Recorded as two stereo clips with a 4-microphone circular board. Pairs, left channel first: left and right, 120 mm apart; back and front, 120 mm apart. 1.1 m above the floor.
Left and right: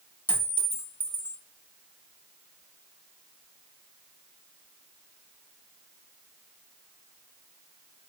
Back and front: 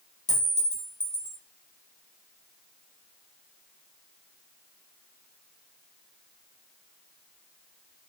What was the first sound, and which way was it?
A clink, 165° left.